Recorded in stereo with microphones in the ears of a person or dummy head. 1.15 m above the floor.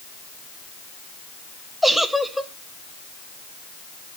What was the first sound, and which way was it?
A giggle, centre (ahead or behind).